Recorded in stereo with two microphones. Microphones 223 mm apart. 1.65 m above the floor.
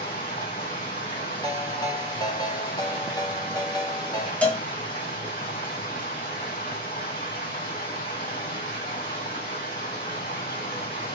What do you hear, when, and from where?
0.0 s running water: 40° left (ahead or behind), 2.5 m
1.4 s a ringtone: 15° left (ahead or behind), 0.6 m
4.4 s a cowbell: 5° left (ahead or behind), 0.7 m